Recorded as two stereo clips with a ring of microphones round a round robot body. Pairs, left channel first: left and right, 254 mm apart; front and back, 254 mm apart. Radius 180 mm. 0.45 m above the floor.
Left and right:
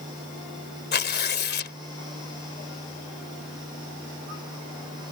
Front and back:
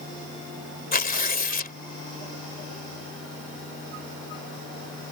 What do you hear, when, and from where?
0.9 s tearing paper: 50° left